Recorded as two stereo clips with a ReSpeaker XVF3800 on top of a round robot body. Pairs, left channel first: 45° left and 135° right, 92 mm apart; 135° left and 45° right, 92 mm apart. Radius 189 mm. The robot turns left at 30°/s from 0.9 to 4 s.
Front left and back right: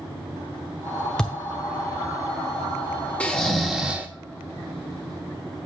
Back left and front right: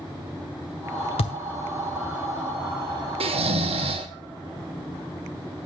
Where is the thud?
125° left, 0.7 m; by 1.4 s 120° left, 0.7 m.